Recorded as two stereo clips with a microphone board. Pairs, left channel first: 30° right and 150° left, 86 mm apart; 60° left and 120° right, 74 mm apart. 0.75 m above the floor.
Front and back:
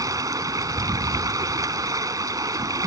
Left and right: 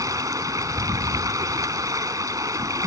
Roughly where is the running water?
Behind.